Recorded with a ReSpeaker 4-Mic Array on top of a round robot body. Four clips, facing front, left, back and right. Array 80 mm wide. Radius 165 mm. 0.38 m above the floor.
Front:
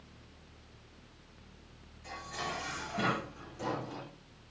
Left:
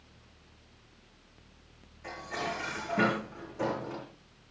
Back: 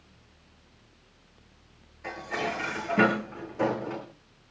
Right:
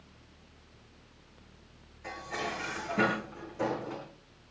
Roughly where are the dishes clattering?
Behind.